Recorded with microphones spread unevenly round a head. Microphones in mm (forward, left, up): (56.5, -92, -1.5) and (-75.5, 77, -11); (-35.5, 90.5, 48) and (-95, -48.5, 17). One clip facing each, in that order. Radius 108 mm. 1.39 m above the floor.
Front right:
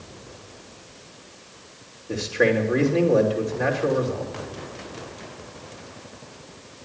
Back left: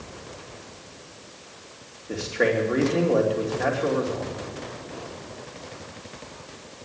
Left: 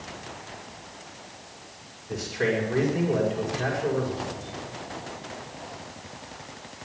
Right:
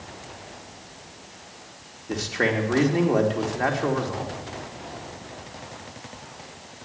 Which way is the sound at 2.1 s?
135° right.